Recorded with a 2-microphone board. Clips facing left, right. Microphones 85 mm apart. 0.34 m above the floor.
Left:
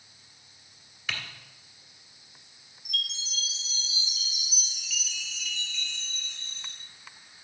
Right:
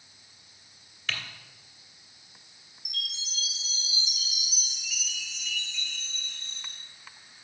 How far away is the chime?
About 2 m.